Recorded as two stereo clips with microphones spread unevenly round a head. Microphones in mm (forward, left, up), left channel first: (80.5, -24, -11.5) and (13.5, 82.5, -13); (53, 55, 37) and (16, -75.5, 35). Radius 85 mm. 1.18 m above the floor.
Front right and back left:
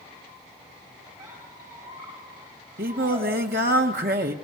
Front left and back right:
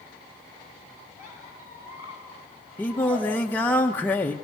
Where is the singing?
155° left, 1.0 m.